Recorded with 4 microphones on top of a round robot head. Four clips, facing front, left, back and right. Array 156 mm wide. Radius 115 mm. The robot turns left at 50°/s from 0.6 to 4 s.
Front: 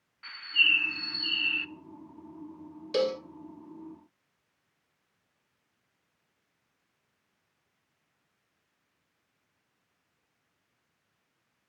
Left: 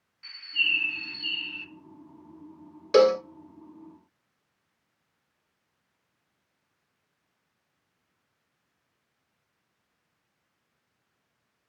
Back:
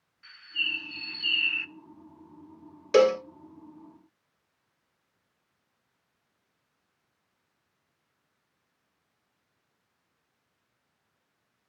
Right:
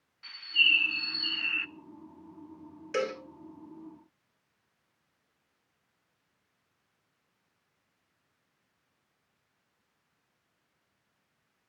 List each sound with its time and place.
0.2 s a bird: 20° right, 0.6 m; by 1.7 s 70° right, 0.6 m
2.9 s a cowbell: 125° left, 0.5 m; by 3.2 s 110° left, 0.5 m